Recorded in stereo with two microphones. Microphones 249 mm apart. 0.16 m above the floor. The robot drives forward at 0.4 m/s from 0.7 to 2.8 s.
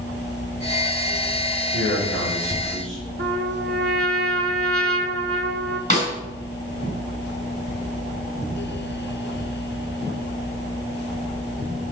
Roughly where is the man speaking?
Right.